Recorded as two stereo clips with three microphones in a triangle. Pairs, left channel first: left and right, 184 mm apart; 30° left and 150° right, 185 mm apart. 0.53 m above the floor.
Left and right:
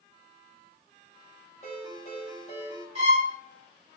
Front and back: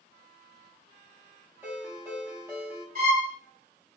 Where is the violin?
135° right, 1.3 m.